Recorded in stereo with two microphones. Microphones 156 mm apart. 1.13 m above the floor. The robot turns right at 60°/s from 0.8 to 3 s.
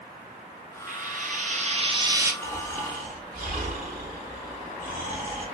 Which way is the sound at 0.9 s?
105° right.